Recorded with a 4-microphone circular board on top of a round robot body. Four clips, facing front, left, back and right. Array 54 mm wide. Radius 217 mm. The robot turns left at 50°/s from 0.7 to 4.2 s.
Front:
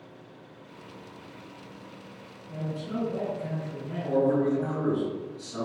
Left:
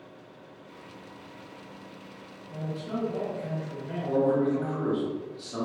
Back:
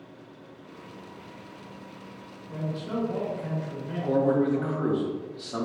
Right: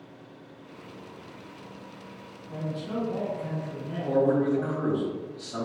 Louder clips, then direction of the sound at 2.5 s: Right 1 dB, back 1 dB; 160° right.